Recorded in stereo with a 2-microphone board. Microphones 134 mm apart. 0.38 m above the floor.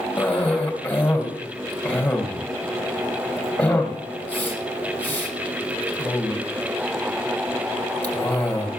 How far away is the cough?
About 2.5 m.